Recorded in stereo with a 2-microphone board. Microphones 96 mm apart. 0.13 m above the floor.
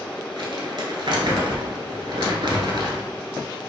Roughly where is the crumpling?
Right.